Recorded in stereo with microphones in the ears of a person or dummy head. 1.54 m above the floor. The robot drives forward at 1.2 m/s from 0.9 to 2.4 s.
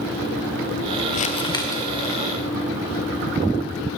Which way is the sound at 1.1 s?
40° left (ahead or behind).